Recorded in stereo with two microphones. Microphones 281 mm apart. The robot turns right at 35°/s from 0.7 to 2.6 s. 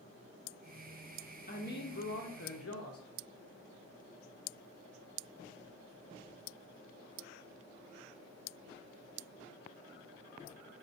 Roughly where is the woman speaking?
Ahead left.